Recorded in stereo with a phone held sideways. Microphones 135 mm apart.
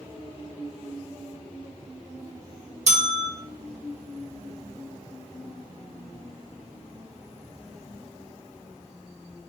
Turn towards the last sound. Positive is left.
turn(degrees=-60)  # may be behind; listen again after turning